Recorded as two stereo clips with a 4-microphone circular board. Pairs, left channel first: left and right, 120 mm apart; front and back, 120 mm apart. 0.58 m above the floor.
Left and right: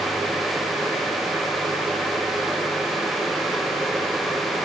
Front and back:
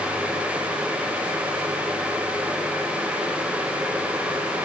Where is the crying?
No crying in this recording.